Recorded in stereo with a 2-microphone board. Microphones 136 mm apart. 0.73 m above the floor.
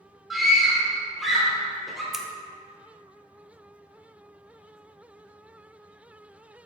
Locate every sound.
0.3 s a scream: centre (ahead or behind), 3 m
2.1 s scissors: centre (ahead or behind), 0.7 m